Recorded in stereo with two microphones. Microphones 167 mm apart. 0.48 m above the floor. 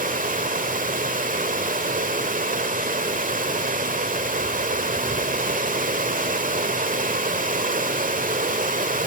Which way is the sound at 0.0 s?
55° right (ahead or behind).